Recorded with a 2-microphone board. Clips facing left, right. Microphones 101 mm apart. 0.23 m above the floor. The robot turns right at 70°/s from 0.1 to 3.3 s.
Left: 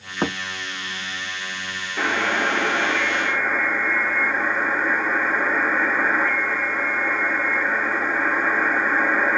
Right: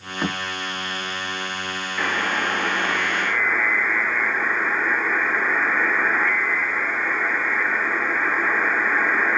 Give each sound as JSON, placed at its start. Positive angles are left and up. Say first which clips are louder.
{"t": 0.2, "sound": "a thud", "louder": "left 2 dB", "side_deg": 30, "distance_m": 1.3}
{"t": 2.0, "sound": "a buzzer", "louder": "left 2 dB", "azimuth_deg": 55, "distance_m": 2.0}